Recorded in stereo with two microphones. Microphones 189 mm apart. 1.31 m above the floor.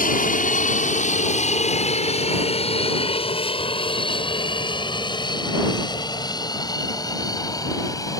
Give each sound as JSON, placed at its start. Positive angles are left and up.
{"t": 0.0, "sound": "an aircraft", "side_deg": 45}